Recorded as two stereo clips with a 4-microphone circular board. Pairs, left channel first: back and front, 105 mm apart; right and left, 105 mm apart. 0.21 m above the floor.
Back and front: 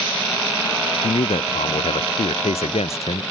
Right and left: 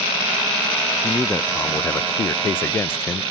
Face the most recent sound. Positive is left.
turn(degrees=-160)